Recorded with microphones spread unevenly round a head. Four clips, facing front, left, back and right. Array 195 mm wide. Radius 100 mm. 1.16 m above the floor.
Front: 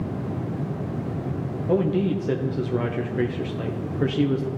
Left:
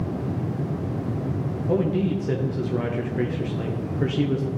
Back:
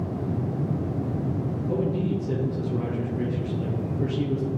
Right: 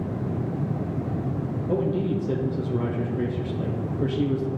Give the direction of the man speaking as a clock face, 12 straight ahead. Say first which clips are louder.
Left 2 dB, front 6 dB; 12 o'clock.